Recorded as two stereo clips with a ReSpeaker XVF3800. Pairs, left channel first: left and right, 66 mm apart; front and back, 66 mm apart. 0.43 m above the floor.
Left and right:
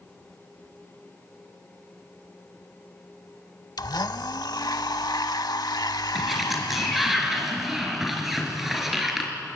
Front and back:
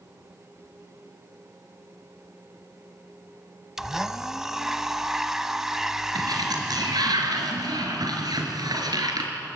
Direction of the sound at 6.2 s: 175° right.